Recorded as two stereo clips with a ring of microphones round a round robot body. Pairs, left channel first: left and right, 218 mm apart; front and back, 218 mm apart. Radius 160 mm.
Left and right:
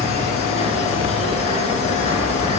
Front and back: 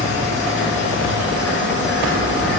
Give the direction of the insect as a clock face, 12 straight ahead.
11 o'clock.